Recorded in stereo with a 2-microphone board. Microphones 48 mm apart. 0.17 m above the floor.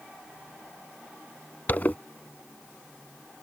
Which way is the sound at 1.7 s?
40° left (ahead or behind).